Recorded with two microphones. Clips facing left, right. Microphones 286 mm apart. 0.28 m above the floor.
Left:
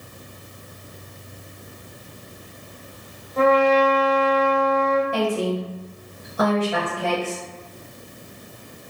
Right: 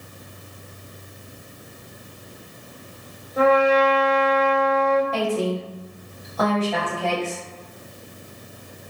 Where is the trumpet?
10° right (ahead or behind), 0.8 m.